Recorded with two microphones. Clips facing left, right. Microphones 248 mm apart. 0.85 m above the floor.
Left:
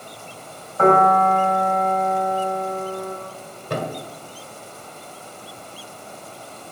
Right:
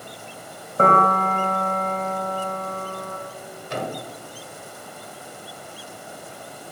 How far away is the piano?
About 2 m.